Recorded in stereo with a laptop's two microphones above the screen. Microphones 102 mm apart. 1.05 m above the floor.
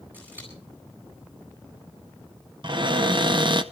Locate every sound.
0.1 s scissors: 20° right (ahead or behind), 9 m
2.6 s a cupboard door: 50° right (ahead or behind), 0.9 m